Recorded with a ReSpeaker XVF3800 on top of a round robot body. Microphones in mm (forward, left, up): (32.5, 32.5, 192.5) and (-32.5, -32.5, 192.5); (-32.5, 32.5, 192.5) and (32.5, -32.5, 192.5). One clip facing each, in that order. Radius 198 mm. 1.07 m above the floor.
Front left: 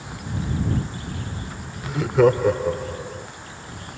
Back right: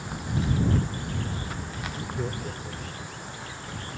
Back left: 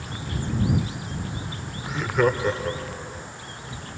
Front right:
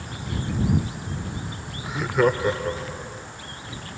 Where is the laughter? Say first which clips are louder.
Front left 18 dB, front right 1 dB; 40° left.